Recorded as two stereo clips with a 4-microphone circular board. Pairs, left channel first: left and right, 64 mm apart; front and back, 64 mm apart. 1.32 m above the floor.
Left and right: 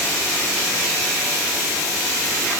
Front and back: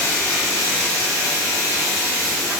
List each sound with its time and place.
Only background noise.